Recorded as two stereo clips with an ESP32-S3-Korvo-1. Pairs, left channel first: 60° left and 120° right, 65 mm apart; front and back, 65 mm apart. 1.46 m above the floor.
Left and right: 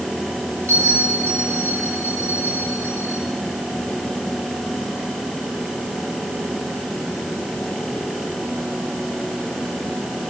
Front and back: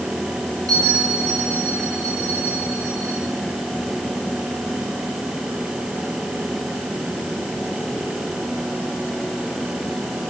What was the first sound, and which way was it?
A bell, 170° right.